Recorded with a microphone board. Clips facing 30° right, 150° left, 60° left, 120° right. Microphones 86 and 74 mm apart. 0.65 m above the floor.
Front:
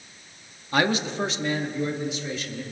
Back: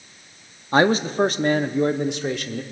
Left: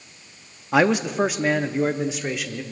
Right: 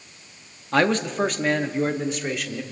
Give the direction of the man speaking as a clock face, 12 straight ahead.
8 o'clock.